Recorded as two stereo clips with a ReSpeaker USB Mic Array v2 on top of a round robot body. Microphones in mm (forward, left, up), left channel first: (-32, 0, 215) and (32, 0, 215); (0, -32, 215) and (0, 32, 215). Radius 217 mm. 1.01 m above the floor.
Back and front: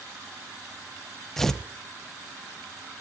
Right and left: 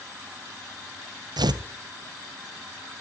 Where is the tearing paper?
95° left, 0.8 m.